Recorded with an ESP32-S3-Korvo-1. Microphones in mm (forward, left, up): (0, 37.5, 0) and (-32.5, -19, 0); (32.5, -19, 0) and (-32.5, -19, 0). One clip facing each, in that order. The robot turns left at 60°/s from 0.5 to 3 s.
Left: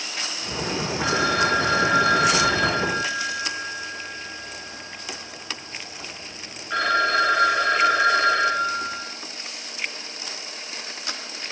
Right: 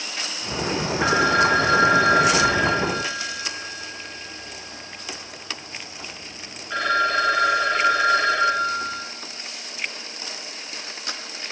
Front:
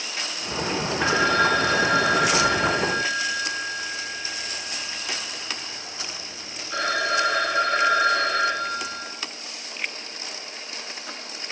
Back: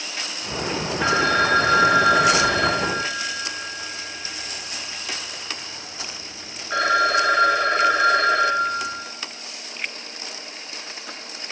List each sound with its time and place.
1.0 s a phone ringing: 95° right, 7.5 m; by 9.0 s 145° left, 7.5 m